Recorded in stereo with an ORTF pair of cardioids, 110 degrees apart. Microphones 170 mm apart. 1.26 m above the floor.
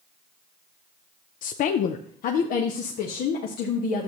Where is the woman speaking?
55° left, 0.6 m; by 4.1 s 70° left, 2 m.